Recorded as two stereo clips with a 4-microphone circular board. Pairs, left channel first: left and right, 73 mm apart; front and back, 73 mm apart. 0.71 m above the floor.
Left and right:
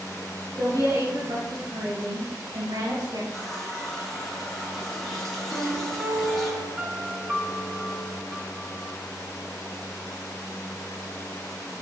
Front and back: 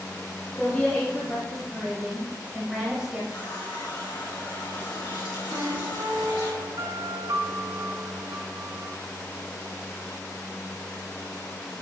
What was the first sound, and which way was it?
A woman speaking, 70° right.